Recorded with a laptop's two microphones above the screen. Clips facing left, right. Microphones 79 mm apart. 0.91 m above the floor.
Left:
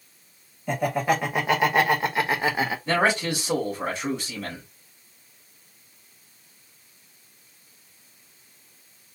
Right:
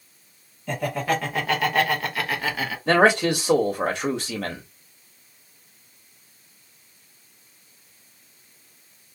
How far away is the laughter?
About 1.6 m.